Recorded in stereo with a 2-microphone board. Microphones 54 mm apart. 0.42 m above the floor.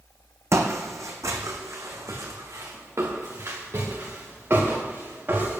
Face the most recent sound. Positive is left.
turn(degrees=-40)  # may be behind; listen again after turning